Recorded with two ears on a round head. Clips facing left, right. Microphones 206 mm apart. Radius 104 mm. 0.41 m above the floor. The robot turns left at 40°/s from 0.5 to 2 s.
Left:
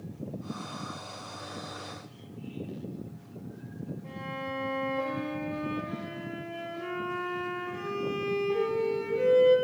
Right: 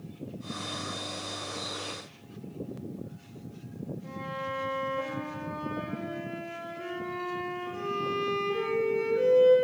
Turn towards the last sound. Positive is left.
turn(degrees=-10)  # may be behind; listen again after turning